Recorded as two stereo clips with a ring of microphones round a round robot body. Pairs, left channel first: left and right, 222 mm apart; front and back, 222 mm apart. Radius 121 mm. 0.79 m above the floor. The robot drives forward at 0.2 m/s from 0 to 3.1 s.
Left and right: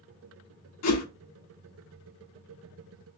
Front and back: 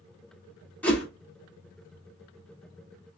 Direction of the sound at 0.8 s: 85° left.